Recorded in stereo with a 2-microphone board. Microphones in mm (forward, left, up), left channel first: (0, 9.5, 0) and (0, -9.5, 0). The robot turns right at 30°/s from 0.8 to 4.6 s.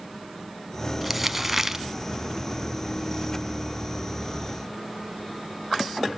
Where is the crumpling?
5° right (ahead or behind), 0.8 m; by 1.9 s 15° right (ahead or behind), 0.8 m.